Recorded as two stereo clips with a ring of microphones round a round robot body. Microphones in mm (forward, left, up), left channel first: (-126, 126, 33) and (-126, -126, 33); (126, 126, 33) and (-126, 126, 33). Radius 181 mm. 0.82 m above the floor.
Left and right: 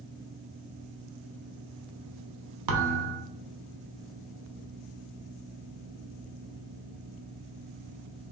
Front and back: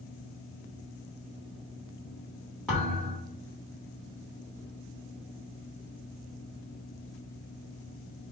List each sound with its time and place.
2.7 s a thud: 90° right, 0.7 m